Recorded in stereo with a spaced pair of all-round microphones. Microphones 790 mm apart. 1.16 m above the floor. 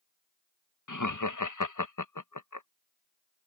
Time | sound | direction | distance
0.9 | laughter | 25° left (ahead or behind) | ?